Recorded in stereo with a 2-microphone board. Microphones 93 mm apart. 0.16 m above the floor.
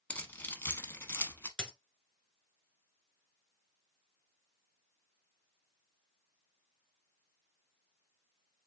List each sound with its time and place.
0.1 s keys jangling: 15° left (ahead or behind), 0.8 m; by 1.5 s 25° left (ahead or behind), 0.9 m
1.6 s a dropped coin: 10° left (ahead or behind), 1.1 m